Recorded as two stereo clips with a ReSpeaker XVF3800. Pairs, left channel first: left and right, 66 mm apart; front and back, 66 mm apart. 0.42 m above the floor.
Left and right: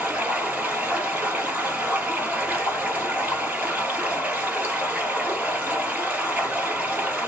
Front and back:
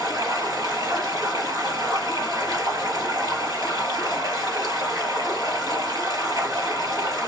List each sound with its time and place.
0.0 s running water: 165° right, 2.5 m